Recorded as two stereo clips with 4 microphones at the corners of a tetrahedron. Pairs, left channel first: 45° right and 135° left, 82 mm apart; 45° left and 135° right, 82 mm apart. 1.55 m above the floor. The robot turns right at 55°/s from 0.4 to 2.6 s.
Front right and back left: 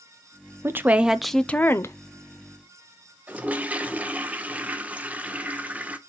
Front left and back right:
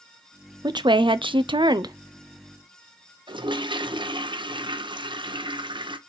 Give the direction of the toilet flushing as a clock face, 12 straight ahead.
5 o'clock.